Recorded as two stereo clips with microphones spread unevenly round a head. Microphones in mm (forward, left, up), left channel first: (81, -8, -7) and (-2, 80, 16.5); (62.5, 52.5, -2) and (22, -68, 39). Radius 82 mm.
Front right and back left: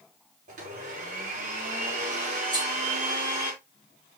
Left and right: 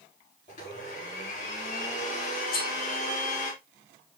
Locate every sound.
0.5 s a blender: 120° left, 5.5 m
2.5 s cutlery clinking: 85° left, 5 m